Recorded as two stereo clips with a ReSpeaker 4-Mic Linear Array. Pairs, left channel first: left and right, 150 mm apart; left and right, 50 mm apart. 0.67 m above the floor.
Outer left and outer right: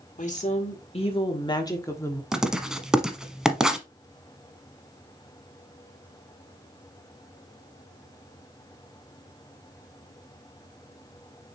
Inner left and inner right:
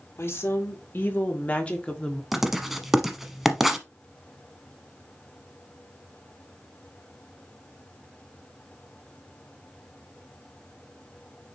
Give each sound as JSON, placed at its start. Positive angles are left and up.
{"t": 0.2, "sound": "a woman speaking", "side_deg": 50, "distance_m": 1.7}
{"t": 2.3, "sound": "writing", "side_deg": -5, "distance_m": 0.9}